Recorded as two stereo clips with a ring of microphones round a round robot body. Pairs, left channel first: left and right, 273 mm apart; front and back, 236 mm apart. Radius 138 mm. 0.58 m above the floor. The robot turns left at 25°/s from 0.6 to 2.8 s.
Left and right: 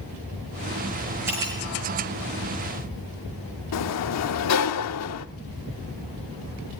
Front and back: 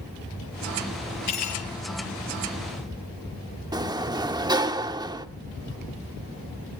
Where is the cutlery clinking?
10° right, 8 m; by 1.7 s 20° right, 8 m.